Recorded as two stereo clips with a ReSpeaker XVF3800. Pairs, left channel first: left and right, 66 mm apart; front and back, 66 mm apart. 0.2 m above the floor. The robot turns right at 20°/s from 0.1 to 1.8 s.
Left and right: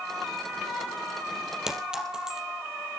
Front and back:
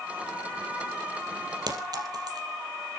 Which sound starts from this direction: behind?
A clink, at 1.7 s.